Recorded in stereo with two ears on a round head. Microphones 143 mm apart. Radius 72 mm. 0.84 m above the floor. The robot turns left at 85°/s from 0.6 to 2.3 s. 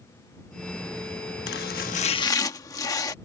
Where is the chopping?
95° left; by 3.1 s 25° left.